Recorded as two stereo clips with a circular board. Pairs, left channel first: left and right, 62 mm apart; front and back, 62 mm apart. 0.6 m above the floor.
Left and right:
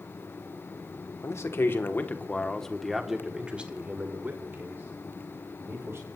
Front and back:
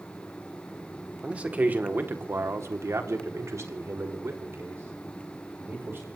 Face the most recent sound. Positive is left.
turn(degrees=-135)